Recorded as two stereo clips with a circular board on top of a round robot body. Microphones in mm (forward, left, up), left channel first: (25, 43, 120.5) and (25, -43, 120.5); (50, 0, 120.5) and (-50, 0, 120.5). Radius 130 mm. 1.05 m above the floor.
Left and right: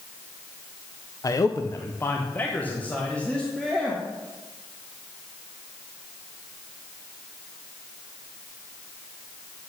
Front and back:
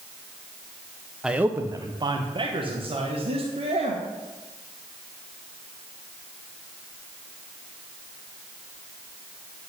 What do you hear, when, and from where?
1.2 s a man speaking: 100° left, 0.8 m; by 4.0 s 170° left, 2.5 m